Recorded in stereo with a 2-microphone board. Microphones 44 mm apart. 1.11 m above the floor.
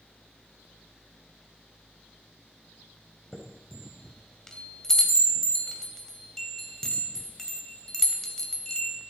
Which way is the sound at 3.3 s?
10° left (ahead or behind).